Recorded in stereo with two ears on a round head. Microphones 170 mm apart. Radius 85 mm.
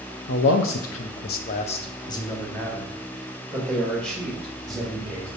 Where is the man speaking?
60° left (ahead or behind), 0.8 m; by 5.3 s centre (ahead or behind), 3.5 m.